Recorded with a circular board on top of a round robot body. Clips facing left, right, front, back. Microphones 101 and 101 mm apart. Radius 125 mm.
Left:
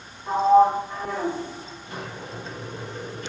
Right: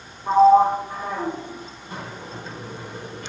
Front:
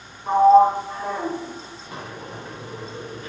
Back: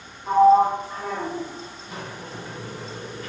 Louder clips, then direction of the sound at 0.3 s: Right 3 dB, front 2 dB; 50° right.